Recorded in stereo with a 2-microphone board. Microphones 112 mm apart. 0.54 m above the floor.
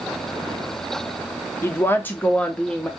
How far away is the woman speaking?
About 0.7 m.